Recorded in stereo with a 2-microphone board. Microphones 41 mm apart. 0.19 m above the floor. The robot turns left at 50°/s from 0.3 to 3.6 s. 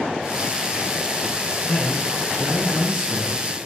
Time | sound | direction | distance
1.6 | a man speaking | 50° left | 2.5 m